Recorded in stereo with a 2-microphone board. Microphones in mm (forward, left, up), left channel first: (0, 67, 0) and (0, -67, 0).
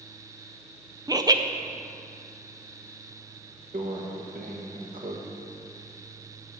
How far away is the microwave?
About 1.5 m.